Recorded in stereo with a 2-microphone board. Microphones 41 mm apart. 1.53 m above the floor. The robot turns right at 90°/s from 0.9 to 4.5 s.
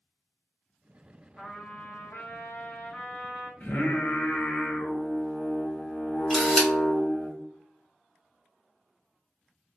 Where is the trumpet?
15° left, 0.8 m; by 3.5 s 155° right, 0.8 m.